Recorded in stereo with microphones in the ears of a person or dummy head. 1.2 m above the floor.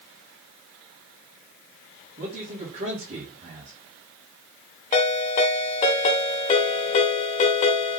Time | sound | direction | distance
2.2 | a man speaking | 40° right (ahead or behind) | 1.9 m
4.9 | a ringtone | 30° left (ahead or behind) | 0.9 m